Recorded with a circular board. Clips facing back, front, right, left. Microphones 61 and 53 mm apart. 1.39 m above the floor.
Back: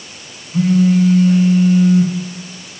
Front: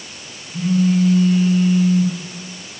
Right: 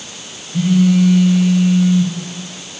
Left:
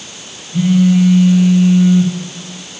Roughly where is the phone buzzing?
Behind.